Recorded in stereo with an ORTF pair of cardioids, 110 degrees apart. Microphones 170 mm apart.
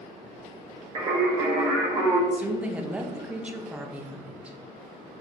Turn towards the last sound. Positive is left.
turn(degrees=-10)